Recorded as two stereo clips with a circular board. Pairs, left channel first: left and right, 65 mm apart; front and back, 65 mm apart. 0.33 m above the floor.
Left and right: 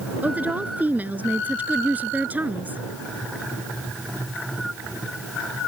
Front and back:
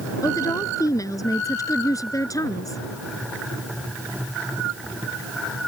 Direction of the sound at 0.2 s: 25° right.